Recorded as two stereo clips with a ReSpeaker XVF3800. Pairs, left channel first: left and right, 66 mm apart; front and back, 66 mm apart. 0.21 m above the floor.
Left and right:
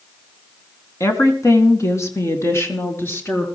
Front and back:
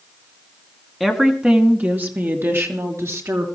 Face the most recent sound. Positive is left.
turn(degrees=140)